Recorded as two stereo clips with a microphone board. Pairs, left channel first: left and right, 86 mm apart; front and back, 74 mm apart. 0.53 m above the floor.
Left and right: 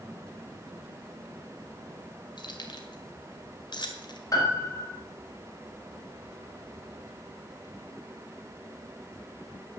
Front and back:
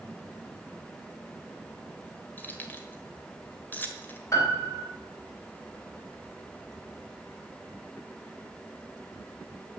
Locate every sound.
2.4 s keys jangling: 65° left, 1.7 m
4.3 s a piano: 45° left, 3.5 m